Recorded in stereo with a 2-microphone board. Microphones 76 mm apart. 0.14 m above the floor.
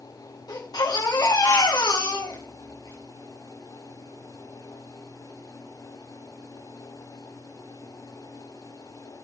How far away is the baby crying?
About 8 m.